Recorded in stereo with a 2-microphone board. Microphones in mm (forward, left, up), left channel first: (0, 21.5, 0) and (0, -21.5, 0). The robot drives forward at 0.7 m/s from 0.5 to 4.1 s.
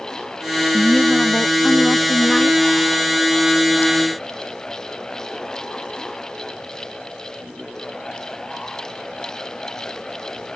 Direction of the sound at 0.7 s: 30° left (ahead or behind).